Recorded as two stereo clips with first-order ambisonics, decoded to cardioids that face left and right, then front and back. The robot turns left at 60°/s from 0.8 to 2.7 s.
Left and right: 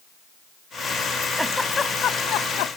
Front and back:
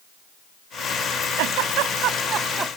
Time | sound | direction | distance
1.4 | a giggle | 175° right | ?